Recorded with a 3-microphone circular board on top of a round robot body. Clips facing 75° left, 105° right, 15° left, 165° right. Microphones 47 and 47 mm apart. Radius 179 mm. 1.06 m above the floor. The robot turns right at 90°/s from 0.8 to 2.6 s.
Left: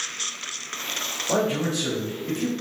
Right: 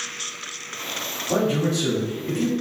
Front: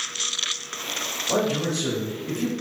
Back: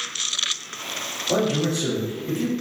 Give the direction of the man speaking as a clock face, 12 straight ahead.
9 o'clock.